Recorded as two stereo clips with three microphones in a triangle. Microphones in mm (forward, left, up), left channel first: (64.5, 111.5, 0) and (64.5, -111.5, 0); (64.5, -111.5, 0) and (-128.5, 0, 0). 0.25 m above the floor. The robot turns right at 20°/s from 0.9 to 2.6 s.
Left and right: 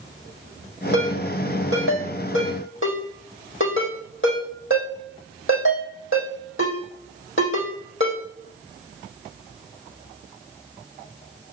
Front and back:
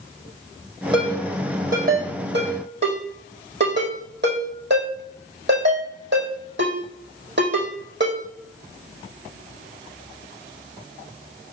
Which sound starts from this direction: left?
A ringtone, at 0.9 s.